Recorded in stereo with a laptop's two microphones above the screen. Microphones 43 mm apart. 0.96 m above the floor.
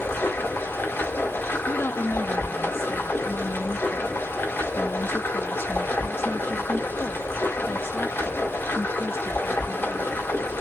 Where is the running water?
65° left (ahead or behind), 1.8 m.